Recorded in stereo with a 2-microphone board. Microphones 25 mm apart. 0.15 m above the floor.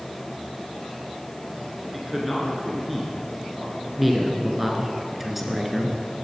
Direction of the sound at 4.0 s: 10° right (ahead or behind).